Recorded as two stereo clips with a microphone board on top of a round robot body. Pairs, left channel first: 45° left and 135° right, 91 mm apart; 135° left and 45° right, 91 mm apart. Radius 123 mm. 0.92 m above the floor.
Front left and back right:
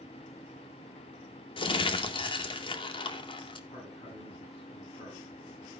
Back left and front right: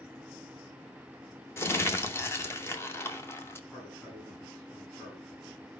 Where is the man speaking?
65° left, 6.5 m.